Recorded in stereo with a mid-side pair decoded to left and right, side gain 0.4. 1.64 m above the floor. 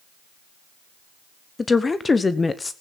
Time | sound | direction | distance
1.6 | a woman speaking | 30° left | 1.1 m